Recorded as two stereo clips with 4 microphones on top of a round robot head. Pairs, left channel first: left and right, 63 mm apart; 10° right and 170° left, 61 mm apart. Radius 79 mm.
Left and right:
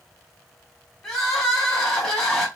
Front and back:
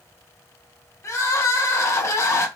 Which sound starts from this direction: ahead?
Crying, at 1.0 s.